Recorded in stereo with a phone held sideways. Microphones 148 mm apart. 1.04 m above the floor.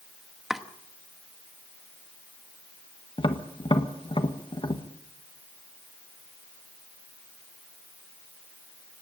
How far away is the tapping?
About 1.3 m.